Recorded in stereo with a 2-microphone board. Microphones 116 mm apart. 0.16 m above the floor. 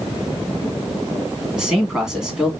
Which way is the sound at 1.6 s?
5° right (ahead or behind).